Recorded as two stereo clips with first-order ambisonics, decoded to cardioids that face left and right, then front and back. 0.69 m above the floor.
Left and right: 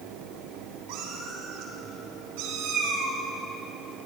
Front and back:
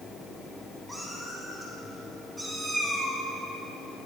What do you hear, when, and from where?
0.9 s a cat meowing: 85° right, 3.5 m; by 3.2 s 100° right, 2 m